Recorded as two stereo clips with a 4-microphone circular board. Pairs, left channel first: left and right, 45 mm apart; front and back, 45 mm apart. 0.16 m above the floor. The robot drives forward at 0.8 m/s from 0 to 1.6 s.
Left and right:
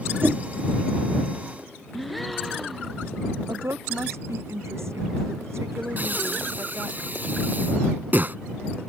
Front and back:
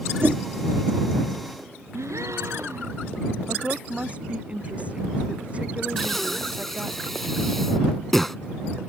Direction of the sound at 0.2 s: 135° right.